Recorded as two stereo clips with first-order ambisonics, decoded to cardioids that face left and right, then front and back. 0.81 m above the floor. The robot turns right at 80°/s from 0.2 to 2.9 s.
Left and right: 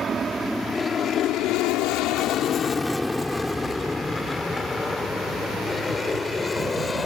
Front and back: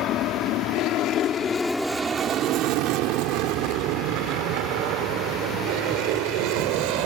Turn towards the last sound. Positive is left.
turn(degrees=165)